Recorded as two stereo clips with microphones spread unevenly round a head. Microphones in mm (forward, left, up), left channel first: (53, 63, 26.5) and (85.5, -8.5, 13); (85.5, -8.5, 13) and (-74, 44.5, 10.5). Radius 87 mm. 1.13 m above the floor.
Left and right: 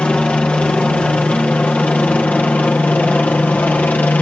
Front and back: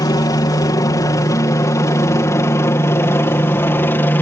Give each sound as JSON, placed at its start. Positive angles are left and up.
{"t": 0.0, "sound": "a helicopter", "azimuth_deg": 35}